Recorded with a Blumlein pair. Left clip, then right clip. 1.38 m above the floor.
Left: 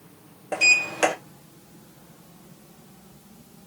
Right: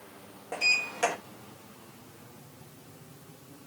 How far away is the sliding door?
About 1.1 m.